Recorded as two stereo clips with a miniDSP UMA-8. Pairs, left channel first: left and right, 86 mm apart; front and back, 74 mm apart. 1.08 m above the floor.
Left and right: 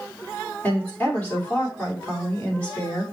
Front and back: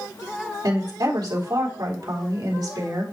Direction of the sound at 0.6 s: 160° left.